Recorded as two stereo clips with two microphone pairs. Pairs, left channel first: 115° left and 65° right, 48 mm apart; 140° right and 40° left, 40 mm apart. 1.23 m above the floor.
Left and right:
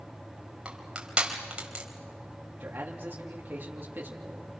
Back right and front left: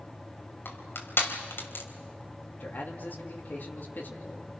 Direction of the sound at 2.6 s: 115° right.